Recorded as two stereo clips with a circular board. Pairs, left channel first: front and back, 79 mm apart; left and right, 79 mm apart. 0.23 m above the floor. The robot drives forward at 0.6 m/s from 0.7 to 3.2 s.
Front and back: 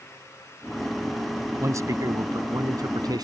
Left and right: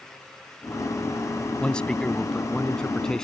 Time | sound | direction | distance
1.6 | a man speaking | 165° left | ?